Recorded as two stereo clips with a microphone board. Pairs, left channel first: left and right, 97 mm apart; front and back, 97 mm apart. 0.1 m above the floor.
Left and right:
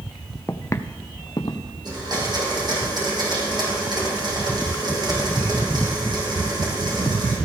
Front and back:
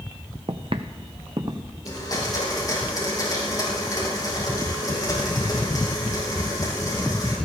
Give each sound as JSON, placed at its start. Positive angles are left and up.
{"t": 0.5, "sound": "footsteps", "azimuth_deg": 160, "distance_m": 0.7}
{"t": 1.9, "sound": "a blender", "azimuth_deg": -50, "distance_m": 4.5}